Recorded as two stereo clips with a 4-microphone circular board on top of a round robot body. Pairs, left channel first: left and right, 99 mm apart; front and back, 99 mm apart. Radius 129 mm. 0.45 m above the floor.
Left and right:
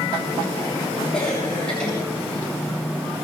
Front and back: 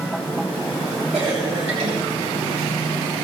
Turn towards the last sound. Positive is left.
turn(degrees=170)